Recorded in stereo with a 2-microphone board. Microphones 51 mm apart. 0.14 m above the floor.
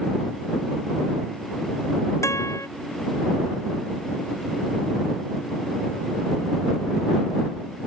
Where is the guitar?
70° left (ahead or behind).